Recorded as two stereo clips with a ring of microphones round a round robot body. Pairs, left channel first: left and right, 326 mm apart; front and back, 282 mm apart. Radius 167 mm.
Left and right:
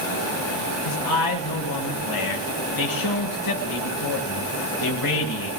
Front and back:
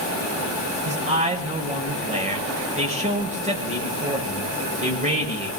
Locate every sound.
0.8 s a man speaking: 115° left, 7.5 m